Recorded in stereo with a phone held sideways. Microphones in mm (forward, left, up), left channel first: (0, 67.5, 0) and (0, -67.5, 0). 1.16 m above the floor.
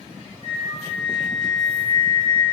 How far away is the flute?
About 0.5 m.